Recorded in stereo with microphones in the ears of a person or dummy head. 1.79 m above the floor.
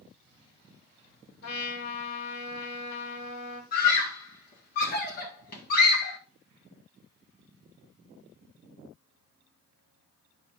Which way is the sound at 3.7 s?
50° left (ahead or behind).